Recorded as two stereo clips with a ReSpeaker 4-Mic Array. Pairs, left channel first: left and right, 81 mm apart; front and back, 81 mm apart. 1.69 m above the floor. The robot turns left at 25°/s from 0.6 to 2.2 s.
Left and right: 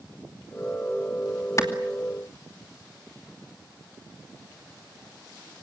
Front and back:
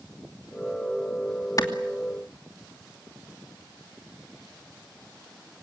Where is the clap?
45° left, 2.5 m; by 1.7 s 40° left, 2.5 m.